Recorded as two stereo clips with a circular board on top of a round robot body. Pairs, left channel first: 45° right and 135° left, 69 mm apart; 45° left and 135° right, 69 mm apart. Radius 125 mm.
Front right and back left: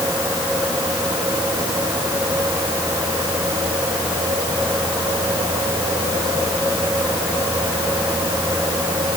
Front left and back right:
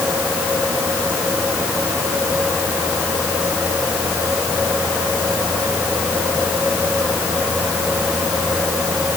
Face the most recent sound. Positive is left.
No sound to turn to.